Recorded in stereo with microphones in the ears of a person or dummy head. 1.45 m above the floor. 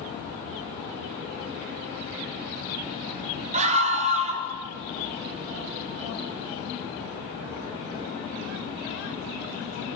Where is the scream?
30° right (ahead or behind), 4 m.